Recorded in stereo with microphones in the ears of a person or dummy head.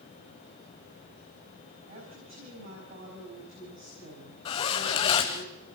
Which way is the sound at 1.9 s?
40° right (ahead or behind).